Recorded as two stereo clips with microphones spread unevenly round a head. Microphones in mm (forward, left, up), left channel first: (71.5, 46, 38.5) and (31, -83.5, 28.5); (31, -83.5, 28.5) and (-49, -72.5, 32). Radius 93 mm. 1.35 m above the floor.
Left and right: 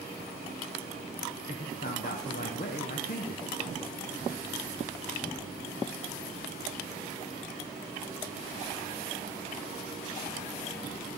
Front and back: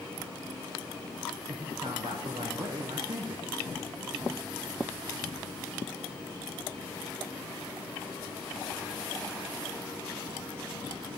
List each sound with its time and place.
1.5 s a man speaking: 115° left, 0.7 m